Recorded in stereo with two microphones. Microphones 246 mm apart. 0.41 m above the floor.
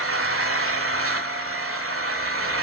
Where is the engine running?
60° right (ahead or behind), 1.4 m.